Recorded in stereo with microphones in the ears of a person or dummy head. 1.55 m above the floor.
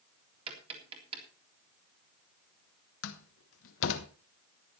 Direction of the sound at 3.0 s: 75° left (ahead or behind).